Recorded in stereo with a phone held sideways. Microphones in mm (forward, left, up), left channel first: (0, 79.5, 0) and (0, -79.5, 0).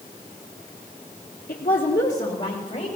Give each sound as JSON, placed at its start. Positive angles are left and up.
{"t": 1.5, "sound": "a woman speaking", "side_deg": 60, "distance_m": 1.1}